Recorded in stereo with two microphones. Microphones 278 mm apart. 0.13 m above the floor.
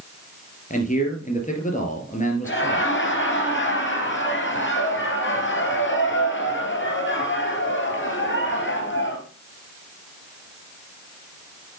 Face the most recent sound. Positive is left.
turn(degrees=45)  # may be behind; listen again after turning